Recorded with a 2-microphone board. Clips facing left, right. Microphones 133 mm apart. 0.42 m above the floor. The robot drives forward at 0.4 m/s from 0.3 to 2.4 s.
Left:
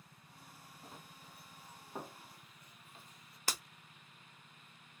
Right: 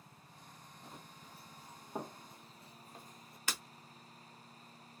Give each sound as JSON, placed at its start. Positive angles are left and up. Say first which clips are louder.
{"t": 0.8, "sound": "running footsteps", "louder": "right 1 dB", "side_deg": 0, "distance_m": 0.9}
{"t": 3.5, "sound": "breaking glass", "louder": "left 1 dB", "side_deg": 40, "distance_m": 0.9}